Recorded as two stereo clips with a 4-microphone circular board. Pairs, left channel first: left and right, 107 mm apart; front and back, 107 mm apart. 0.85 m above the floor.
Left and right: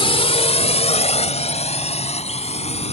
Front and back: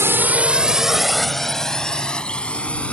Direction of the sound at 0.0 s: 115° left.